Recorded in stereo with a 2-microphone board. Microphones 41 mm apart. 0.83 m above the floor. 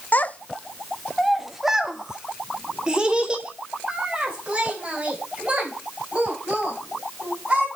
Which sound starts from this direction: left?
A child speaking, at 0.1 s.